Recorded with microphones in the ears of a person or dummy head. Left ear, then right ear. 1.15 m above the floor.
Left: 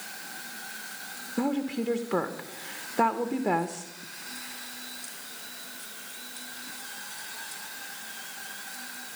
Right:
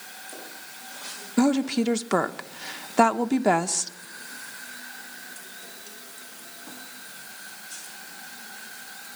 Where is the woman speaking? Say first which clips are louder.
Right 7 dB; 70° right (ahead or behind), 0.6 m.